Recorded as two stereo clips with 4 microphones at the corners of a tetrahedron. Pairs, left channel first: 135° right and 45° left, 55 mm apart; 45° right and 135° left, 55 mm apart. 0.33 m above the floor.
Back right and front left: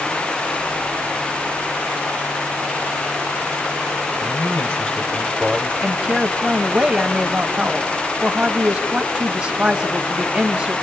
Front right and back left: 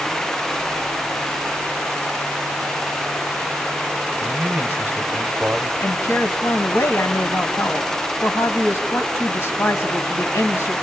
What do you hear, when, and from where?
4.2 s a man speaking: 165° right, 1.8 m; by 5.7 s 100° left, 1.0 m
5.8 s a woman speaking: 25° right, 1.9 m